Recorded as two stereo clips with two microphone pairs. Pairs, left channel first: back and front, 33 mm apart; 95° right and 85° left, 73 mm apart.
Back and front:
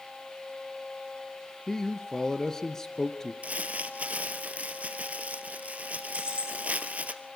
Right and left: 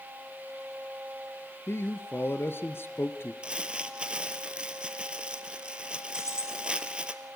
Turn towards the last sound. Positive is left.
turn(degrees=55)